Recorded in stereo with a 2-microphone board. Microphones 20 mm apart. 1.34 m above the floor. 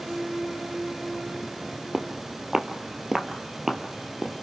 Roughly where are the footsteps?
Right.